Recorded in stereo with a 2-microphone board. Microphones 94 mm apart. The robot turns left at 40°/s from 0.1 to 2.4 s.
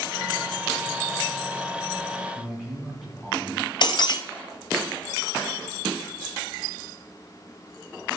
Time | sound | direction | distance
2.4 | a man speaking | 5° right (ahead or behind) | 3 m
3.8 | breaking glass | 60° left (ahead or behind) | 0.9 m